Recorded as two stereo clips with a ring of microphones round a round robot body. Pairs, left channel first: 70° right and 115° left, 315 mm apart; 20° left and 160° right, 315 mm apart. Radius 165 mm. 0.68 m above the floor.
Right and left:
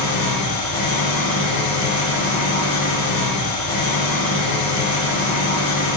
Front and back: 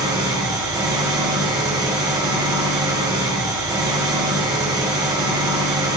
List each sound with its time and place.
0.0 s an engine running: 80° right, 1.3 m